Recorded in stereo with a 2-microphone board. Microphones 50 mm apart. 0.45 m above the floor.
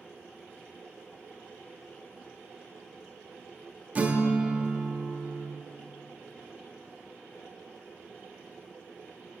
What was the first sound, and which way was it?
A guitar, 30° right (ahead or behind).